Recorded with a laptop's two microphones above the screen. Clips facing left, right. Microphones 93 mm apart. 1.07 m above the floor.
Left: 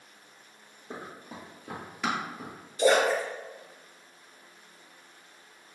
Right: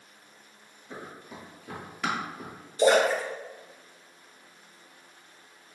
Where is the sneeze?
No sneeze in this recording.